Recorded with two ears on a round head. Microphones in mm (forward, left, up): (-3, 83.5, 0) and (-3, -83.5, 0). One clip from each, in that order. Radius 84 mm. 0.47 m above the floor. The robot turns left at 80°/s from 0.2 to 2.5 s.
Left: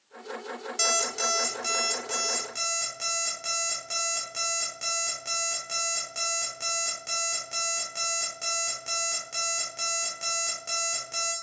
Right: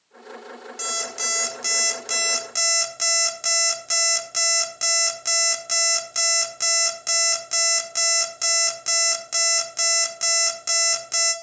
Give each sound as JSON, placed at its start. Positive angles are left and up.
{"t": 0.8, "sound": "an alarm clock", "azimuth_deg": 15, "distance_m": 0.7}